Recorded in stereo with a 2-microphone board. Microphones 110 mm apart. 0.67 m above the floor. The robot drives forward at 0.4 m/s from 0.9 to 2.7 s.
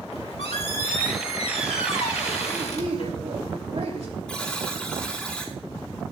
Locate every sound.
0.1 s a squeak: 65° left (ahead or behind), 1.9 m; by 3.1 s 75° left (ahead or behind), 1.8 m
2.5 s a woman speaking: 75° right (ahead or behind), 3 m
4.3 s a buzzer: 5° left (ahead or behind), 4.5 m